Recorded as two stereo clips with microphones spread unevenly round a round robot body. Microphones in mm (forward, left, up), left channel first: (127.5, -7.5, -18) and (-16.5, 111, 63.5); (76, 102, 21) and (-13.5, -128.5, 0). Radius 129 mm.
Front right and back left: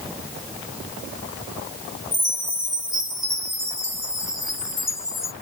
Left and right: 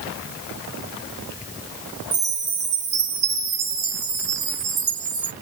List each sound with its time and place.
2.1 s a chime: 155° right, 1.1 m